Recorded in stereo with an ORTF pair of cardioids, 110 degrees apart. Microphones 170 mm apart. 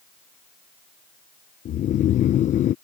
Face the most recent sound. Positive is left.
turn(degrees=50)